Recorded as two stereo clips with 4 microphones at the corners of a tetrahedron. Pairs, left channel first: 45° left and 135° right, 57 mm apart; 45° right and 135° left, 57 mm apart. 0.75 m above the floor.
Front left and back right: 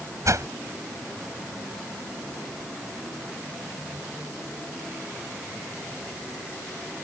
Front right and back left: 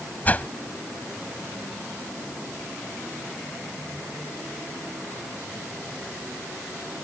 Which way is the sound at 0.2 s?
105° right.